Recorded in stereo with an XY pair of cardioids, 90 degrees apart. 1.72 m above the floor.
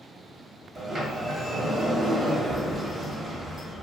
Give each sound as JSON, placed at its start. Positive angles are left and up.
{"t": 0.8, "sound": "a sliding door", "azimuth_deg": -45, "distance_m": 1.0}